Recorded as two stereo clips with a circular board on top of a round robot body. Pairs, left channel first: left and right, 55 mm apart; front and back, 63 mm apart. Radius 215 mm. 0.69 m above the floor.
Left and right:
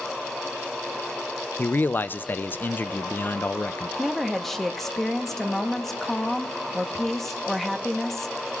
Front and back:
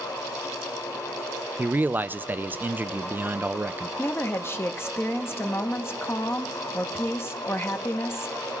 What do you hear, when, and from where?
1.6 s a man speaking: 130° left, 0.5 m
4.0 s a woman speaking: 10° left, 1.1 m